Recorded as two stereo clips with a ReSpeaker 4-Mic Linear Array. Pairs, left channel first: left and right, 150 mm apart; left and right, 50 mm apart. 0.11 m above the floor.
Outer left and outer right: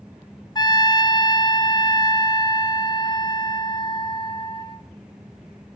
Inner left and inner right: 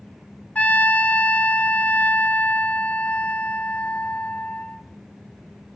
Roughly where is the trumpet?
Left.